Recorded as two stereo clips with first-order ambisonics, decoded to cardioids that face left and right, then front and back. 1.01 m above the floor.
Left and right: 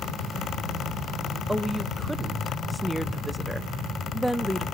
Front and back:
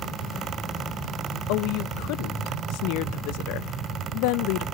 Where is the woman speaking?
Straight ahead, 0.6 m.